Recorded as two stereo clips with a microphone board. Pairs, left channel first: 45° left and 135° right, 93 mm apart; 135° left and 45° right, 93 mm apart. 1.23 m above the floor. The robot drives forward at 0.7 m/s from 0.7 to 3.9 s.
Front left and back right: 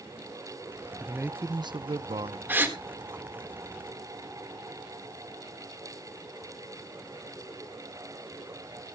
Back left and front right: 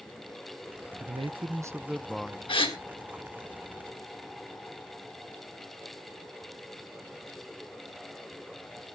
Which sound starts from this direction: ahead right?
A man speaking, at 1.0 s.